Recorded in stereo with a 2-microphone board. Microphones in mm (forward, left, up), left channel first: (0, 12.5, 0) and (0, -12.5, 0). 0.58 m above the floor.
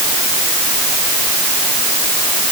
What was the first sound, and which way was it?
Only background noise.